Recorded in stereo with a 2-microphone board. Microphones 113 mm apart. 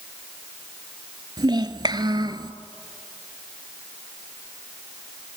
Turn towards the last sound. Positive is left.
turn(degrees=-40)  # may be behind; listen again after turning